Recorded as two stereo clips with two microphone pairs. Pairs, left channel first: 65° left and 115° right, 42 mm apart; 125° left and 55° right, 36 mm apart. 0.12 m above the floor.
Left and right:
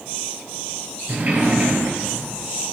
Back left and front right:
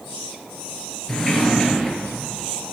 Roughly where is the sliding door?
Behind right.